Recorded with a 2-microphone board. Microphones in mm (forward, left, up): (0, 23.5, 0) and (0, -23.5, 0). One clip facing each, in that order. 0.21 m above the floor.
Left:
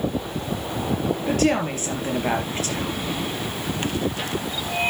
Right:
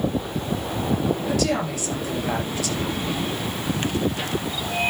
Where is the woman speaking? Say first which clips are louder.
Left 2 dB; 40° left (ahead or behind), 4 m.